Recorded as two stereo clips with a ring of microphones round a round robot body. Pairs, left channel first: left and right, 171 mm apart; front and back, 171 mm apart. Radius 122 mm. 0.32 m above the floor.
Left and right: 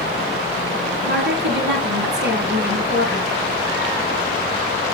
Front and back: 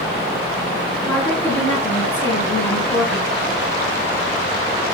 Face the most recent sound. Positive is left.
turn(degrees=-80)